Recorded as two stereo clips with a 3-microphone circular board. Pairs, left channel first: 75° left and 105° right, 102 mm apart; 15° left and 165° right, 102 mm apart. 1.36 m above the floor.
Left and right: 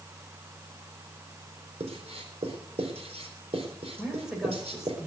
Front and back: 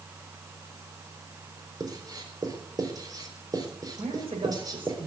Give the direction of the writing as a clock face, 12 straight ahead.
4 o'clock.